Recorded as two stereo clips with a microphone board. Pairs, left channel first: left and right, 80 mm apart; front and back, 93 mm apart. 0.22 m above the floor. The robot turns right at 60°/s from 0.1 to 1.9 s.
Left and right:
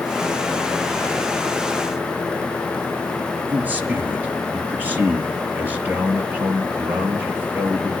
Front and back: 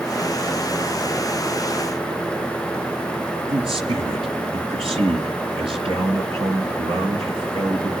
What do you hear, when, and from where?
3.5 s a man speaking: 160° right, 4 m